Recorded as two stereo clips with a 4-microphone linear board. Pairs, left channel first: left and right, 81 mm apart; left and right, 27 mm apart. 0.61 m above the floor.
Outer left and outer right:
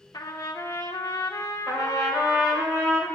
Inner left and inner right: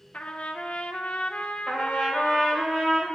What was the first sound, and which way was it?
A trumpet, 55° left (ahead or behind).